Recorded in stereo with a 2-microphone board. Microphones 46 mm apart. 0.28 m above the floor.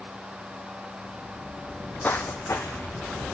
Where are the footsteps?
10° left (ahead or behind), 0.7 m; by 3.2 s 80° left, 2 m.